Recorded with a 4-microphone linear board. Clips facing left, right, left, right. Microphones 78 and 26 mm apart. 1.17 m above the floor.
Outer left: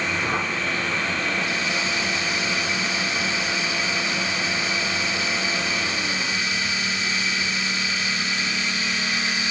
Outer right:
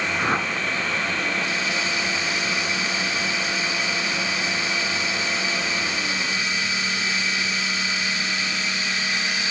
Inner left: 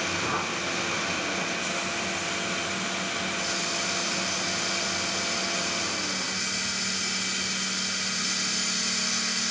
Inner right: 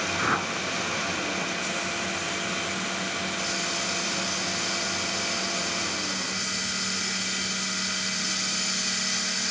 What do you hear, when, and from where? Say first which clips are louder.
0.2 s a whoosh: outer right 2 dB, inner right 2 dB; 60° right (ahead or behind), 3 m